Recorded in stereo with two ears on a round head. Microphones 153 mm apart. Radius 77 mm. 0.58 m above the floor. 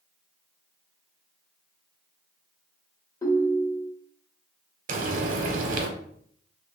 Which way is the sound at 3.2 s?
20° left (ahead or behind).